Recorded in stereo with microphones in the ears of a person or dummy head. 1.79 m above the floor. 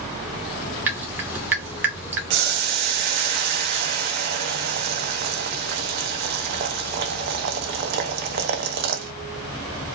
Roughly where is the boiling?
Right.